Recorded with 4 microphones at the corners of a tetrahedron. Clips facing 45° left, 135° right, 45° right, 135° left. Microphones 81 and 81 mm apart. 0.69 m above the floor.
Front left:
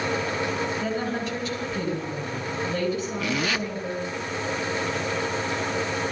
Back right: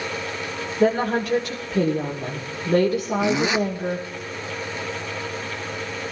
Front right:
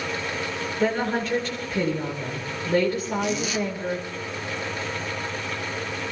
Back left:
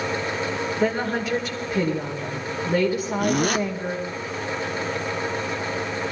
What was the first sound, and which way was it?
A woman speaking, 140° right.